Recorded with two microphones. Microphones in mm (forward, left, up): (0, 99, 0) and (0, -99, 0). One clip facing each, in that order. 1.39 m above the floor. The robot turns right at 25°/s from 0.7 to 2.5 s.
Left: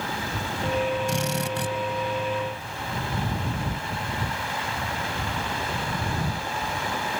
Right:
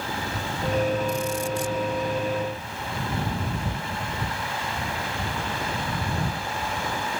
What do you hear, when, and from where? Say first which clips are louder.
1.1 s a drill: right 1 dB; 75° left (ahead or behind); by 1.8 s 60° left (ahead or behind)